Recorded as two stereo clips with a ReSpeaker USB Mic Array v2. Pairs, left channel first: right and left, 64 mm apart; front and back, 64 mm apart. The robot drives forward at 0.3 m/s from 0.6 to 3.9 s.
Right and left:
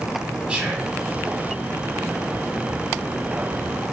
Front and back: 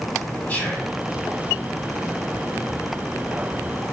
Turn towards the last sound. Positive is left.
turn(degrees=155)